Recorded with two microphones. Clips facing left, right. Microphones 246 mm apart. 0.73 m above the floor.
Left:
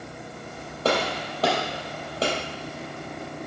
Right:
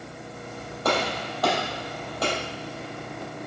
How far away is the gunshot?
About 3.5 m.